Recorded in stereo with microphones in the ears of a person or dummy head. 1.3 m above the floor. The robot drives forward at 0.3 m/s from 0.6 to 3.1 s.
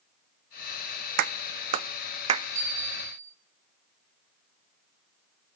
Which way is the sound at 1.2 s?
55° right (ahead or behind).